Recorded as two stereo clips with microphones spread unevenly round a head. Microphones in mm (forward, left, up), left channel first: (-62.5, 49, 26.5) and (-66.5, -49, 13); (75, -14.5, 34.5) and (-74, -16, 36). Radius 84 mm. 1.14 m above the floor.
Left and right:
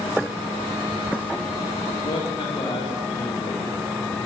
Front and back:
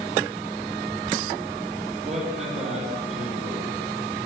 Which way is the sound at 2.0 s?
130° left.